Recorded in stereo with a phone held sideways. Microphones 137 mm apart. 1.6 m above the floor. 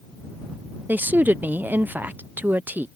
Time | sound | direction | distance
0.9 | a woman speaking | 15° right (ahead or behind) | ?